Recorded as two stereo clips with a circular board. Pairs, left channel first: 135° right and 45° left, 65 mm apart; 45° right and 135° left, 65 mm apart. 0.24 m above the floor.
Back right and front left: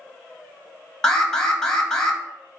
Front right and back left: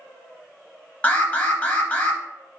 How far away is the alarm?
About 0.8 m.